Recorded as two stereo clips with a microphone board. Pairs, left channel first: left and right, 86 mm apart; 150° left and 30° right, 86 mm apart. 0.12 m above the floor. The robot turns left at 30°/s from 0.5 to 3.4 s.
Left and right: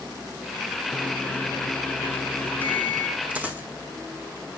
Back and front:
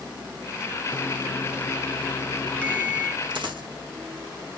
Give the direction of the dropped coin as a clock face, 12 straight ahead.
1 o'clock.